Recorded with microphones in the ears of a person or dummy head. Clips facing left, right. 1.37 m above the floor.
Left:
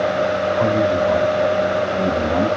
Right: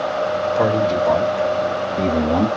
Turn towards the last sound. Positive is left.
turn(degrees=-40)  # may be behind; listen again after turning